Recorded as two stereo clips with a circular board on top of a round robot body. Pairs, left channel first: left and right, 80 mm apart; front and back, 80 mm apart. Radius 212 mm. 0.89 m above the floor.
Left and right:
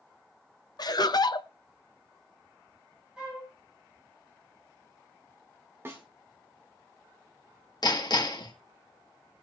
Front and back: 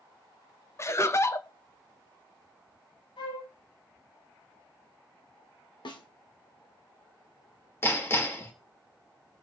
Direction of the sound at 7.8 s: 60° left.